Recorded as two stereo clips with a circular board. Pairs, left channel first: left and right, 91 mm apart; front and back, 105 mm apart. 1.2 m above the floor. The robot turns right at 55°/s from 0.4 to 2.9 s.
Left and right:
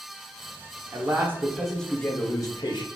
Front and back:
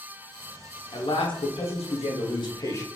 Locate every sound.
0.9 s a man speaking: 45° right, 0.6 m; by 2.9 s 65° left, 0.6 m